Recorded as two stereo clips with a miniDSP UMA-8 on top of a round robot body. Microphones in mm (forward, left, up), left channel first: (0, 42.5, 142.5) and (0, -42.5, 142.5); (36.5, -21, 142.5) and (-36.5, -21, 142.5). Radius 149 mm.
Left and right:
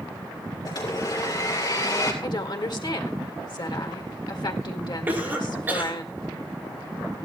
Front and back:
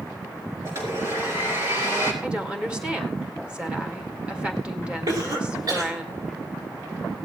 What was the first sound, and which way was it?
A blender, 130° left.